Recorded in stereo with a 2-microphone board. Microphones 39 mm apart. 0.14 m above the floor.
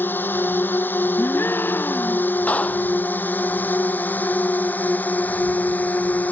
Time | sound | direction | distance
0.0 | a drone | 55° left (ahead or behind) | ?
1.2 | a gasp | 65° left (ahead or behind) | ?
2.5 | a clap | 40° left (ahead or behind) | ?